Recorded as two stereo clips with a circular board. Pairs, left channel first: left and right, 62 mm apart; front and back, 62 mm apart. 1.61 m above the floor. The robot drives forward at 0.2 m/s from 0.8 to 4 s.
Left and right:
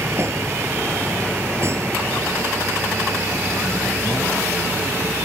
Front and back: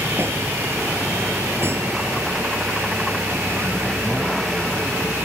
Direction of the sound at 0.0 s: 130° right.